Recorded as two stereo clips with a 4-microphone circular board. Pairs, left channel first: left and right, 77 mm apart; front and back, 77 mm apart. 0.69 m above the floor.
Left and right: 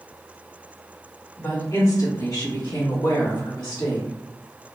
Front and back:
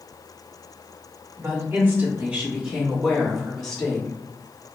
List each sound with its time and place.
1.4 s a woman speaking: 135° left, 1.7 m; by 4.1 s 75° left, 1.9 m